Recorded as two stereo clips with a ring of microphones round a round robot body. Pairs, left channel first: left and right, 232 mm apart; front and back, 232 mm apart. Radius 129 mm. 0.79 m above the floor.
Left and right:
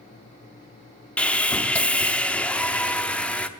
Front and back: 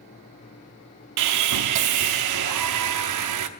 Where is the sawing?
175° left, 0.7 m.